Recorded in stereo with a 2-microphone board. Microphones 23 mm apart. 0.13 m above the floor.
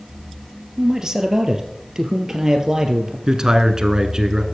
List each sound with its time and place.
0.8 s a man speaking: 25° right (ahead or behind), 2.5 m
3.3 s a man speaking: 30° right (ahead or behind), 1.4 m